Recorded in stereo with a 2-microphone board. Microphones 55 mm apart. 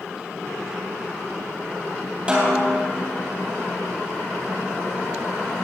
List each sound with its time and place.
2.3 s a snare drum: 20° right (ahead or behind), 3 m